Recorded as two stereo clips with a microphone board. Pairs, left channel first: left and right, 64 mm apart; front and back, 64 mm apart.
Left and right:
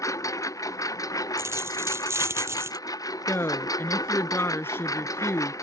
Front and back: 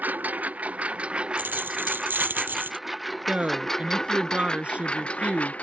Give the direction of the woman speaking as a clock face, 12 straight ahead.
8 o'clock.